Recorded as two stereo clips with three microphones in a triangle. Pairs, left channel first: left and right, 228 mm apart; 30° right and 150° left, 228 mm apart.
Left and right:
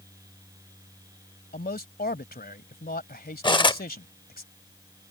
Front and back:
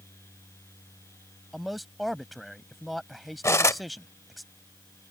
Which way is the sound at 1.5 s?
60° left.